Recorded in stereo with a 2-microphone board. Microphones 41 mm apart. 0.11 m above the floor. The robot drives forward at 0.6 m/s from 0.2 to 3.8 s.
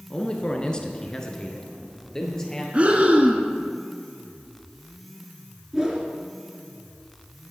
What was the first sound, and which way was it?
A man speaking, 25° left (ahead or behind).